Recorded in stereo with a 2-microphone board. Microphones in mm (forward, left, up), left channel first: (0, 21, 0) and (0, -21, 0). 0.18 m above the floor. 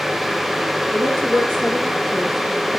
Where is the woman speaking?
65° right (ahead or behind), 3 m; by 2.7 s 55° right (ahead or behind), 4 m.